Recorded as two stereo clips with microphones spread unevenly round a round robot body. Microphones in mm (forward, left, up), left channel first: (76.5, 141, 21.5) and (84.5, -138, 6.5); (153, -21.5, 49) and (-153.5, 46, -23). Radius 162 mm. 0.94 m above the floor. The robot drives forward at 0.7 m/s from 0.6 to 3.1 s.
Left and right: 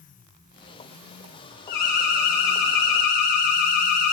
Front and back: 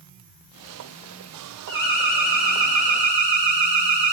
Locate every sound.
1.7 s an alarm: 90° left, 4 m; by 4.1 s 105° left, 4 m